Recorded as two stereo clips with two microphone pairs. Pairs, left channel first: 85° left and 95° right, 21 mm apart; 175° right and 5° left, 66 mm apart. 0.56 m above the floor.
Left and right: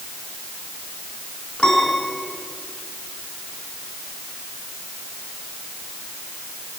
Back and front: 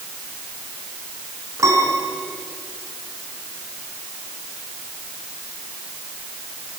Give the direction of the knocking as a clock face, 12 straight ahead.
I don't hear knocking.